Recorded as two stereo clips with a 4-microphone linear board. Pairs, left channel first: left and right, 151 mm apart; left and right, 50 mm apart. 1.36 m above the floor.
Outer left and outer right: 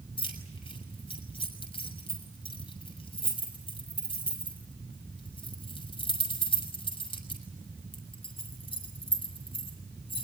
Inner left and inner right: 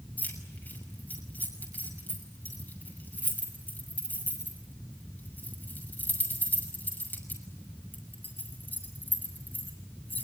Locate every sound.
0.2 s keys jangling: 40° left (ahead or behind), 6 m